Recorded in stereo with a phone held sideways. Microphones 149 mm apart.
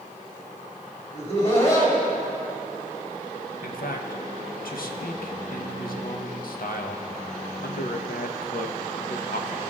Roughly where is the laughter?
Left.